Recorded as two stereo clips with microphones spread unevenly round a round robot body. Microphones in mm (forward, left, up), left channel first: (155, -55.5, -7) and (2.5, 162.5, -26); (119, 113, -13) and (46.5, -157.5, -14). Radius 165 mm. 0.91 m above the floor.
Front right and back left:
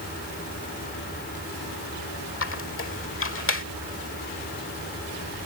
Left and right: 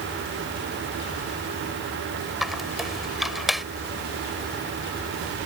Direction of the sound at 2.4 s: 15° right.